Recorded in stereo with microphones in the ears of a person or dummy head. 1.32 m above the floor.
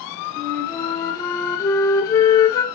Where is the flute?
20° left (ahead or behind), 0.6 m.